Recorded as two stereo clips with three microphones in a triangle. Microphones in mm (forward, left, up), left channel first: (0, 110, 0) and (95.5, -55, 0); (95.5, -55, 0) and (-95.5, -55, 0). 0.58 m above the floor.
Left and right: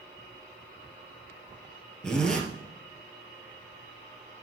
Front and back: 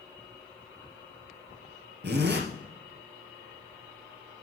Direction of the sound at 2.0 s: 155° right.